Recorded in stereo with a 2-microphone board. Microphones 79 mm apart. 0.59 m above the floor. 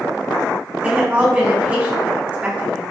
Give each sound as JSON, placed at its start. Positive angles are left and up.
{"t": 0.8, "sound": "a woman speaking", "side_deg": -20, "distance_m": 1.1}